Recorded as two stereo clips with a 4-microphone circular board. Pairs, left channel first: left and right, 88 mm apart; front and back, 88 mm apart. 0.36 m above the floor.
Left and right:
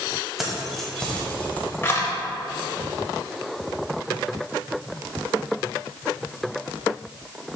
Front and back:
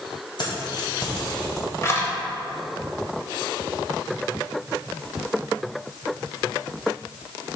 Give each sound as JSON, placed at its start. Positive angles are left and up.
{"t": 0.4, "sound": "keys jangling", "azimuth_deg": 0, "distance_m": 1.5}